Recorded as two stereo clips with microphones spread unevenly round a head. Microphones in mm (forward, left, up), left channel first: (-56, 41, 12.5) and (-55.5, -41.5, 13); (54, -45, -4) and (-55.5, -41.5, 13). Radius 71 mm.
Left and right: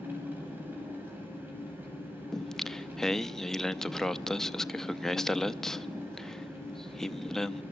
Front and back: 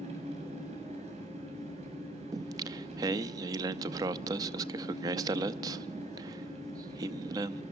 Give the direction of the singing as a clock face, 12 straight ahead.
6 o'clock.